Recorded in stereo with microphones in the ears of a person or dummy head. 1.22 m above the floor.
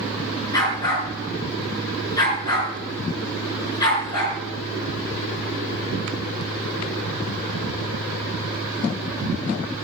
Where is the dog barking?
20° left (ahead or behind), 8 m.